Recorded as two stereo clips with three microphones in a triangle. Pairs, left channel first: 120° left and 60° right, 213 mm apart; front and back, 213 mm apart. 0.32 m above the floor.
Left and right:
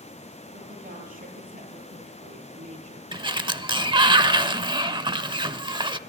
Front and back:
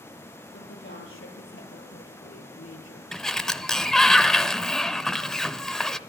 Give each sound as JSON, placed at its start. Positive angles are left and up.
{"t": 0.5, "sound": "a woman speaking", "azimuth_deg": -15, "distance_m": 9.0}
{"t": 3.1, "sound": "a sliding door", "azimuth_deg": -85, "distance_m": 0.8}